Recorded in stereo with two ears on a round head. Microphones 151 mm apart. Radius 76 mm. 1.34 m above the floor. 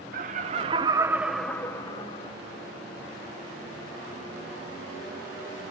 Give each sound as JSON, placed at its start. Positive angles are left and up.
{"t": 0.1, "sound": "laughter", "side_deg": -50, "distance_m": 1.3}